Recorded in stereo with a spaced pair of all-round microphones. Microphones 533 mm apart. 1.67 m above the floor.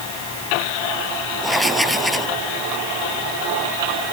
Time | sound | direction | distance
1.4 | writing | centre (ahead or behind) | ?